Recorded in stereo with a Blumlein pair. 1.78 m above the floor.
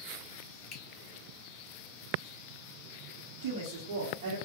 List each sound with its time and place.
0.7 s a finger snap: 30° left, 1.7 m
3.4 s a woman speaking: 55° right, 1.5 m